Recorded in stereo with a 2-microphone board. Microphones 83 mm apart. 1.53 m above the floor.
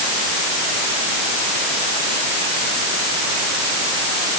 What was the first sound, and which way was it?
Only background noise.